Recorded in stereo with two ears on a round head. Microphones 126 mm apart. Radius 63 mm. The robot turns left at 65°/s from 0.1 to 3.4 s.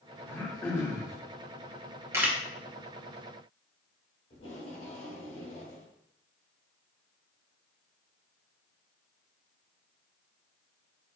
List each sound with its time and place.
0.3 s throat clearing: 15° left (ahead or behind), 1.1 m; by 1.2 s 25° left (ahead or behind), 1.1 m
2.1 s a camera shutter: 20° right (ahead or behind), 0.8 m; by 2.4 s 5° right (ahead or behind), 0.8 m
4.3 s tape being pulled: 55° left (ahead or behind), 2 m